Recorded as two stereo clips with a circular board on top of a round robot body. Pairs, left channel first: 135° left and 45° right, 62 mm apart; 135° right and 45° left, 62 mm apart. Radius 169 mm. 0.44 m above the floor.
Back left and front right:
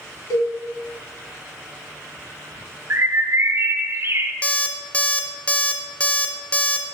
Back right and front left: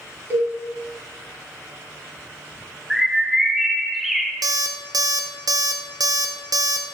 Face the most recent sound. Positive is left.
turn(degrees=65)